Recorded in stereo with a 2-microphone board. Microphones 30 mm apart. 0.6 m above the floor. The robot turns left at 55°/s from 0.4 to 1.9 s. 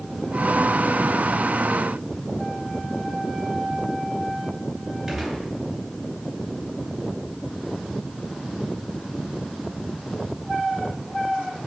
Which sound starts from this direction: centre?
A gunshot, at 5.1 s.